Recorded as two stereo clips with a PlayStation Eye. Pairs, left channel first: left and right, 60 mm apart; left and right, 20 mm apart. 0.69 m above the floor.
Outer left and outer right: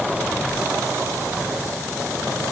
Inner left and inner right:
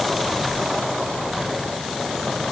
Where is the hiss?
No hiss in this recording.